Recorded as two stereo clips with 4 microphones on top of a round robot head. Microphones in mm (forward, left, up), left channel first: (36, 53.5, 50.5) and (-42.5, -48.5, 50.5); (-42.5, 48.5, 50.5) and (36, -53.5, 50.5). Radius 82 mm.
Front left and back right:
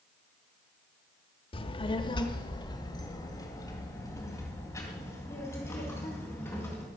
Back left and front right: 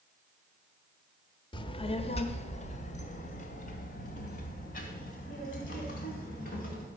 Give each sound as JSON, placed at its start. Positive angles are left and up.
{"t": 1.5, "sound": "a child speaking", "azimuth_deg": 85, "distance_m": 1.1}